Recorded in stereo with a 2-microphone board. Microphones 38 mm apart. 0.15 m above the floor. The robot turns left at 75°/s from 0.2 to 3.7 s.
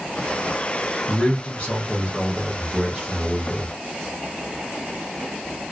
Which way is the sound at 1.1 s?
25° left (ahead or behind).